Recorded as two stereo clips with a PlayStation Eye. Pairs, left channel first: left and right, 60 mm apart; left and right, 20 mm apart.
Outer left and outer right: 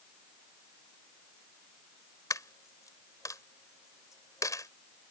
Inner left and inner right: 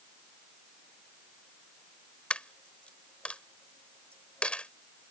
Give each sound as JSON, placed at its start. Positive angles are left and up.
{"t": 2.3, "sound": "a dropped coin", "side_deg": 75}